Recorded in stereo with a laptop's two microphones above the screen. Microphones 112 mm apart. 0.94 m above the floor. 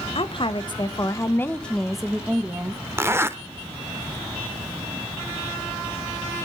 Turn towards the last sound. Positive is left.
turn(degrees=-20)  # may be behind; listen again after turning